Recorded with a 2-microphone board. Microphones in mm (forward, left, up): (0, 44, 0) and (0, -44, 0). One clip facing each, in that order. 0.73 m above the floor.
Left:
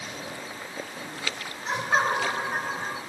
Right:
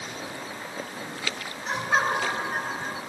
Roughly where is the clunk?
I don't hear a clunk.